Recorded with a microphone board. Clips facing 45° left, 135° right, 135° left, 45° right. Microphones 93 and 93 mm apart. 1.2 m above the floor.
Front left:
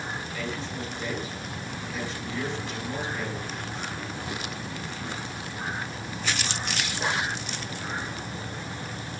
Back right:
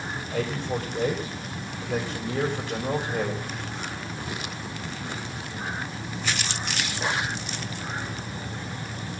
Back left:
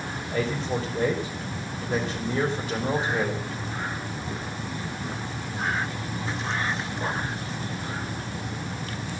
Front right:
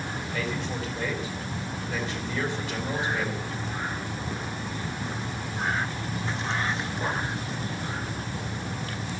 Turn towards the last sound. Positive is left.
turn(degrees=-170)